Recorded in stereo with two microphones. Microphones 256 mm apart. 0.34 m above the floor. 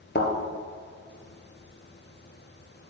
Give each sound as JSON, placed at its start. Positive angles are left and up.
{"t": 0.1, "sound": "a thud", "side_deg": 40, "distance_m": 2.0}